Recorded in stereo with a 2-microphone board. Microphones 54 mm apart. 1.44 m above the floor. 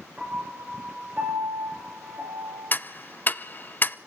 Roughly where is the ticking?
Left.